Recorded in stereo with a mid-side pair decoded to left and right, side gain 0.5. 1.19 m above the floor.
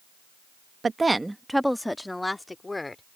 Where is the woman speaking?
30° right; by 3.0 s 20° left.